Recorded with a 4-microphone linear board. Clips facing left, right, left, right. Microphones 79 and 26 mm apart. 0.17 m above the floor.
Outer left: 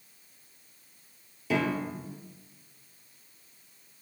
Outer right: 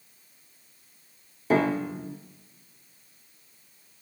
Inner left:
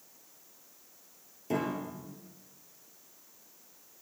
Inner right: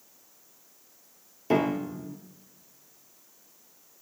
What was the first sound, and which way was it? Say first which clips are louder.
A piano: outer right 5 dB, inner right 7 dB; 40° right (ahead or behind).